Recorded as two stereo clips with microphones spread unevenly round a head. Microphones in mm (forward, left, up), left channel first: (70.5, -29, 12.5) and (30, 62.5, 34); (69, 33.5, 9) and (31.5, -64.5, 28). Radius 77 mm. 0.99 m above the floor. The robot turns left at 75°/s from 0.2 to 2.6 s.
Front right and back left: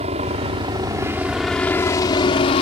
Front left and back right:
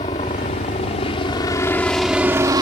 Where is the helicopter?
115° left; by 2.6 s 65° right.